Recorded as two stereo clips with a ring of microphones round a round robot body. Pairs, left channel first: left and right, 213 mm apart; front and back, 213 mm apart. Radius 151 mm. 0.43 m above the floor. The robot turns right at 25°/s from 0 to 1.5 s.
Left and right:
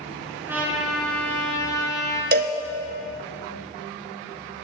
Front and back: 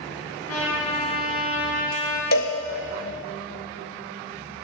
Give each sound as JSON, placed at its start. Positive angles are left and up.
{"t": 0.5, "sound": "a trumpet", "azimuth_deg": -10, "distance_m": 5.0}
{"t": 2.3, "sound": "a cowbell", "azimuth_deg": -45, "distance_m": 1.0}